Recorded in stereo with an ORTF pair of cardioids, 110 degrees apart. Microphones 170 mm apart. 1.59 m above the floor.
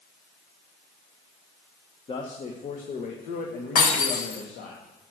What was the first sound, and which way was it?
A man speaking, 30° left.